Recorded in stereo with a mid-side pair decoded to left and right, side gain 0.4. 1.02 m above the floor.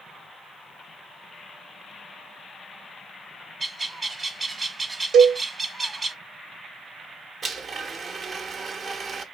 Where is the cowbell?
65° right, 0.6 m.